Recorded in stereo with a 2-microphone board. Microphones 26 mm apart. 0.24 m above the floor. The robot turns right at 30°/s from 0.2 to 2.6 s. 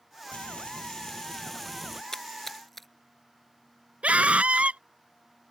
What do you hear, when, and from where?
0.3 s frying: 130° left; by 2.0 s straight behind
2.1 s a splash: 20° left (ahead or behind); by 2.9 s 10° left (ahead or behind)
4.0 s a scream: 55° right (ahead or behind)